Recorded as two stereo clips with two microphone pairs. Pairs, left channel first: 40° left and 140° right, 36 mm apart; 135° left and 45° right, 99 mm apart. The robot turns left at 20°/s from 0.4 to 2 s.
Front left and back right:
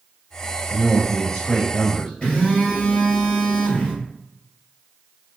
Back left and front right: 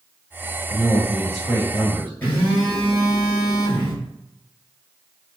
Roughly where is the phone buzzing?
Left.